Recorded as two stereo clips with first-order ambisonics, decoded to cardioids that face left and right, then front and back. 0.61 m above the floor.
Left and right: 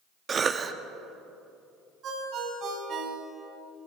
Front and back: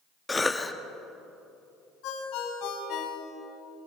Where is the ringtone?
35° right, 3 m.